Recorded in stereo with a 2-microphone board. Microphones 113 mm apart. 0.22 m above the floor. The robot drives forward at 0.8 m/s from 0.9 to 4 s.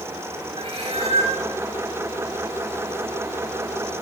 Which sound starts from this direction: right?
A cat meowing, at 0.6 s.